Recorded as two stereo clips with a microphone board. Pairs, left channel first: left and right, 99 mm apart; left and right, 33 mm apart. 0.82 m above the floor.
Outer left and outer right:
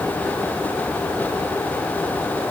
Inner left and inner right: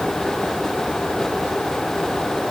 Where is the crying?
No crying in this recording.